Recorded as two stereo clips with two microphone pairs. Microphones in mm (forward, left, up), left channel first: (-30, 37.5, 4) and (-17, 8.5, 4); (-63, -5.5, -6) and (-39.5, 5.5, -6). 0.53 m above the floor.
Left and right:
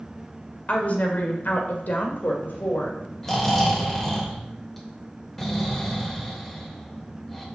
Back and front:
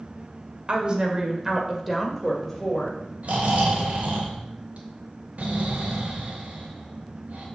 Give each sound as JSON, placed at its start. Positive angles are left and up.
{"t": 0.7, "sound": "a woman speaking", "azimuth_deg": 75, "distance_m": 1.9}
{"t": 3.2, "sound": "snoring", "azimuth_deg": 35, "distance_m": 2.5}